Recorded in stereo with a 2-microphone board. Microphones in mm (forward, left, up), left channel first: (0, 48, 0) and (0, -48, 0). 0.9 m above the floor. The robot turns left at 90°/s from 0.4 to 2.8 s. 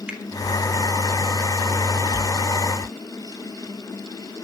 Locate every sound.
0.1 s a finger snap: 10° right (ahead or behind), 2.5 m